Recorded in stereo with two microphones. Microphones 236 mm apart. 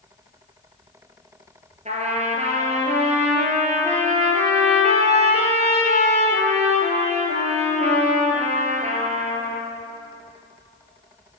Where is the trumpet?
30° right (ahead or behind), 2 m.